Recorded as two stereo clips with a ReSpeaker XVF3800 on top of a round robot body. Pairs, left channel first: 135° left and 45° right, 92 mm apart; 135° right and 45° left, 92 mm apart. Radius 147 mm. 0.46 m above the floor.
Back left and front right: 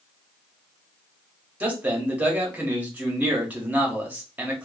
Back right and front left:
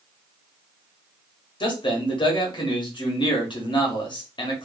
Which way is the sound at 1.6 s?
115° right.